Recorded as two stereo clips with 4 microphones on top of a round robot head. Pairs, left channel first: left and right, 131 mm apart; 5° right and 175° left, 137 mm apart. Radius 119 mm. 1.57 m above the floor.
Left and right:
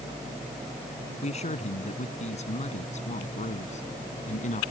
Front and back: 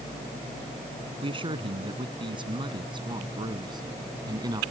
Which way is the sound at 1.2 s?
125° left.